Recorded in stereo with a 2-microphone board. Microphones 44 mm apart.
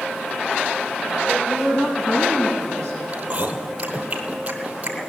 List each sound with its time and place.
1.3 s a woman speaking: 10° right (ahead or behind), 1.0 m; by 3.0 s 40° left (ahead or behind), 2.5 m
3.1 s chewing: 35° right (ahead or behind), 1.2 m